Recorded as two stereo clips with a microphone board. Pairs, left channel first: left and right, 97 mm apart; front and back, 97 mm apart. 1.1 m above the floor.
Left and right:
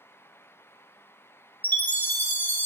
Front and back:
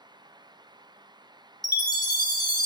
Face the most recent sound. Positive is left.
turn(degrees=25)